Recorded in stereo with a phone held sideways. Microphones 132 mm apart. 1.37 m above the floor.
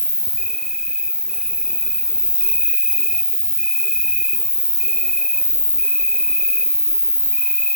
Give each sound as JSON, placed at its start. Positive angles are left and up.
{"t": 0.0, "sound": "an insect", "side_deg": -5, "distance_m": 1.0}